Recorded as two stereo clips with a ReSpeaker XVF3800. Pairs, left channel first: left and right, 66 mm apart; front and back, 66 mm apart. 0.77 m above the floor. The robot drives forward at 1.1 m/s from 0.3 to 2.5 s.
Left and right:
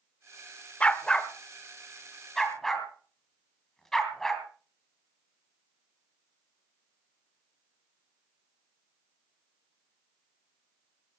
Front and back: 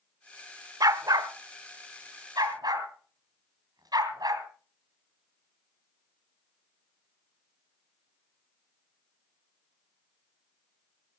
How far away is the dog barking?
About 0.9 m.